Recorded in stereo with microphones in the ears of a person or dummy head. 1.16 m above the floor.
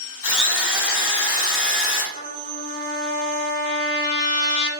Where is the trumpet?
55° left (ahead or behind), 2 m.